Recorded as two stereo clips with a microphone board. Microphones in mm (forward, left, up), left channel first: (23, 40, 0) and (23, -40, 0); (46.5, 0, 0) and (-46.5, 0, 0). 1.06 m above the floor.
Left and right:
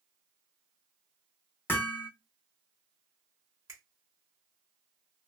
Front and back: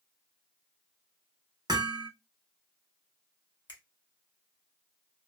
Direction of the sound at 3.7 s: 40° right.